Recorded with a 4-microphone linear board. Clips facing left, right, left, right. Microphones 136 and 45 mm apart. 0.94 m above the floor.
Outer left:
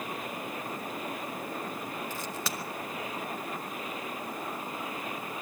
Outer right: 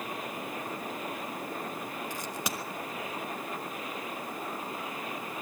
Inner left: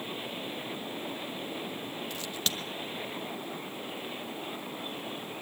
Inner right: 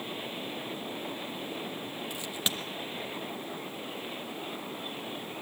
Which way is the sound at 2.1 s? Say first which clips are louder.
Even, inner right 2 dB; 15° right (ahead or behind).